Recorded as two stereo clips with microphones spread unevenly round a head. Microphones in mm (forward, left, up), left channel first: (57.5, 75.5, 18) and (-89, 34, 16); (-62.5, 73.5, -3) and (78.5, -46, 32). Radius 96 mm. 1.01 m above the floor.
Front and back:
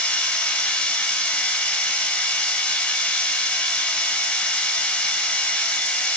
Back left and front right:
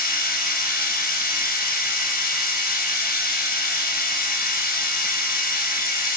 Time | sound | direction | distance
0.0 | a machine running | 100° left | 4 m